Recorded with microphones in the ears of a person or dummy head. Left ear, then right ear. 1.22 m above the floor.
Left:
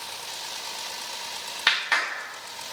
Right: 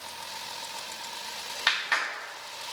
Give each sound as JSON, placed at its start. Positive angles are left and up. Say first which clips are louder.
{"t": 1.7, "sound": "a clap", "louder": "left 4 dB", "side_deg": 0, "distance_m": 0.9}